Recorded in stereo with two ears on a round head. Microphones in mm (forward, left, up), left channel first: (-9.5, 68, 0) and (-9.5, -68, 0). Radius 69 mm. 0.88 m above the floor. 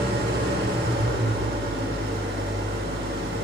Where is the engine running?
70° right (ahead or behind), 0.9 m.